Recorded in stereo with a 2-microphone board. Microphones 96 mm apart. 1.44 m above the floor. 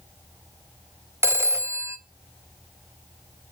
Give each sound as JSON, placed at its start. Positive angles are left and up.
{"t": 1.2, "sound": "a phone ringing", "side_deg": -30, "distance_m": 0.6}